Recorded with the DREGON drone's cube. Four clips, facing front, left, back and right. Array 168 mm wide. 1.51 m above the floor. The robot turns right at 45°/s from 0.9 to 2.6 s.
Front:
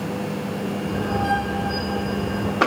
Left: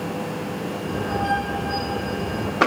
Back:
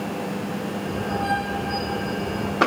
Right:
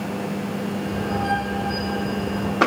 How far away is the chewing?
I don't hear chewing.